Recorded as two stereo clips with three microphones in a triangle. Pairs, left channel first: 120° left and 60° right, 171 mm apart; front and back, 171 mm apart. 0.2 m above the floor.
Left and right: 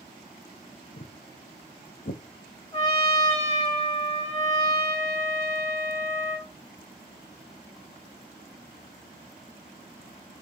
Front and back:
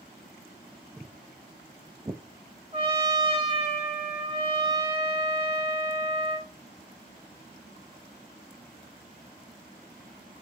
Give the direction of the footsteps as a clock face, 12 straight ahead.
9 o'clock.